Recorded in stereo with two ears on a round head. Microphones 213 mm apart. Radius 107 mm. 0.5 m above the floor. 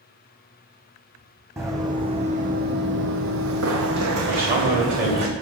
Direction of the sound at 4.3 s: 40° right (ahead or behind).